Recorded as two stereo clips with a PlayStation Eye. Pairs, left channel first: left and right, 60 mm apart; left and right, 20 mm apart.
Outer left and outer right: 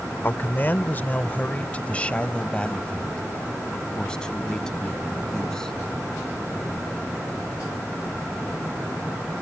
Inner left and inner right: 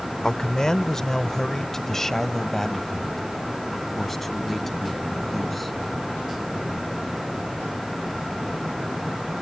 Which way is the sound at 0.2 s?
35° left (ahead or behind).